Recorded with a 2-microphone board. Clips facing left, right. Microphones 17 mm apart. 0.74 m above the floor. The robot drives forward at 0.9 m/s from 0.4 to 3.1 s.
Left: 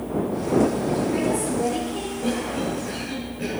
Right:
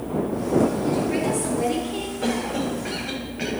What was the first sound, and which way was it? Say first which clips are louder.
A woman speaking: even; 40° right (ahead or behind).